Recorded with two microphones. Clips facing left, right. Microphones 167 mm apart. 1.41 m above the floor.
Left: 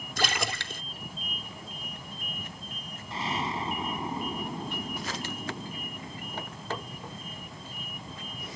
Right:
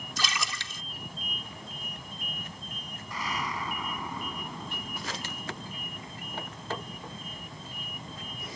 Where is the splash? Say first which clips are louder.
Left 5 dB; 60° left (ahead or behind).